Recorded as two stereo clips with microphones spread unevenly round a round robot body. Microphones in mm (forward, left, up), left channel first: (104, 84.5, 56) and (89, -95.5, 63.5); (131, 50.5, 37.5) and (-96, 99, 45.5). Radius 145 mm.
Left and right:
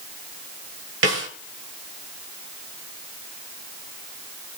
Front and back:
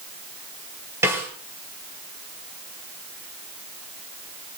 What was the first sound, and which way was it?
A snare drum, 110° right.